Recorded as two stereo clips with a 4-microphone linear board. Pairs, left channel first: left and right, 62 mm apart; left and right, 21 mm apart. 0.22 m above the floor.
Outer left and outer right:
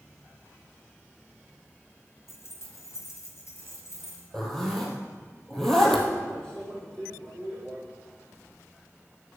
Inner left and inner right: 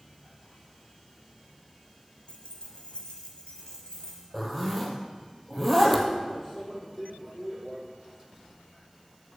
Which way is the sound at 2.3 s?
50° left (ahead or behind).